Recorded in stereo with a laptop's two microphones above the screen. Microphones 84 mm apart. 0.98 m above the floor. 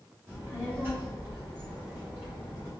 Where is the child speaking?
25° right (ahead or behind), 1.0 m.